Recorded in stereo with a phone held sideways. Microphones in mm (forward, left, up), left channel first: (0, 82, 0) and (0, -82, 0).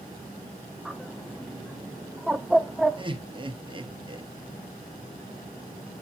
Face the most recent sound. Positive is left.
turn(degrees=-30)  # may be behind; listen again after turning